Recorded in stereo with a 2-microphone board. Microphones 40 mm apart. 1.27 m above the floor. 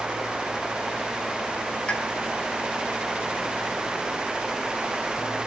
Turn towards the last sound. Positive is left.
turn(degrees=25)  # may be behind; listen again after turning